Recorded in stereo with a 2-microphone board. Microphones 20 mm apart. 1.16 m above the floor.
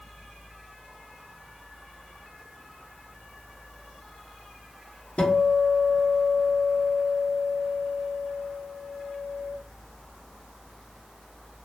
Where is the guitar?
70° left (ahead or behind), 0.8 m.